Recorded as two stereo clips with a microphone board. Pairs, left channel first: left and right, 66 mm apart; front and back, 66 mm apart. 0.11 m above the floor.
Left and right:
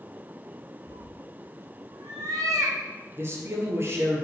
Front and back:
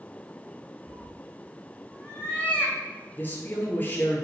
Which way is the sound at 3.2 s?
50° right.